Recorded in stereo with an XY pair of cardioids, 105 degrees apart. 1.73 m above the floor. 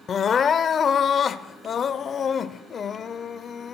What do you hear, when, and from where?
0.1 s crying: 50° left, 0.6 m